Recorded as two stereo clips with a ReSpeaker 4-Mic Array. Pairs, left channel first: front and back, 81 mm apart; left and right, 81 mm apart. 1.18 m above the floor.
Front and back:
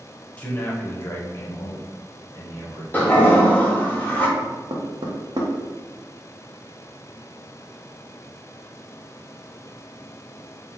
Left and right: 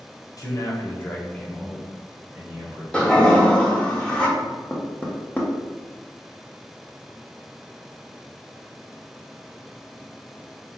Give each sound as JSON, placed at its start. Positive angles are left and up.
{"t": 0.4, "sound": "a man speaking", "azimuth_deg": 70, "distance_m": 0.9}
{"t": 2.9, "sound": "a toilet flushing", "azimuth_deg": 30, "distance_m": 0.8}
{"t": 4.4, "sound": "knocking", "azimuth_deg": 160, "distance_m": 0.7}